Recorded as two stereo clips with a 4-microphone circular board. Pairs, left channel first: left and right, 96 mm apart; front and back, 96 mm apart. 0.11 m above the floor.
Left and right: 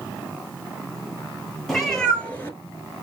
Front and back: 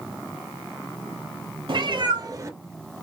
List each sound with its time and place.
1.7 s a cat meowing: 175° left, 1.1 m; by 3.0 s 95° left, 0.7 m